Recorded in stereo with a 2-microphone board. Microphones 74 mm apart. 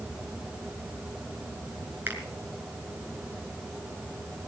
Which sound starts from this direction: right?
A finger snap, at 2.1 s.